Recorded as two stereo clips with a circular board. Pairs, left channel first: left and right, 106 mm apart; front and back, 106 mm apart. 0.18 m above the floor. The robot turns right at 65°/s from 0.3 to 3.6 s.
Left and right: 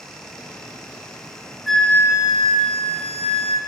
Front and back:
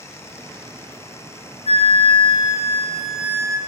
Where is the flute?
Straight ahead, 0.7 m; by 3.6 s 125° left, 0.7 m.